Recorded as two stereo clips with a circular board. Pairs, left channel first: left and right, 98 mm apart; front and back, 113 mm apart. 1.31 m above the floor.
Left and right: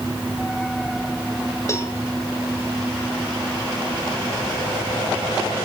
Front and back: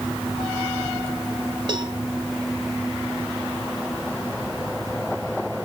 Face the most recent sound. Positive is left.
turn(degrees=145)